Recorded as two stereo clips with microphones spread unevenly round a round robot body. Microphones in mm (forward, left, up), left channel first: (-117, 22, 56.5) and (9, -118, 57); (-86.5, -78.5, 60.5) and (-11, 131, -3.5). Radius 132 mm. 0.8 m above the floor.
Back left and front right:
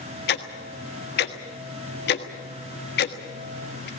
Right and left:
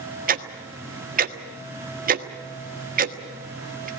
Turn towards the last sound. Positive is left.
turn(degrees=110)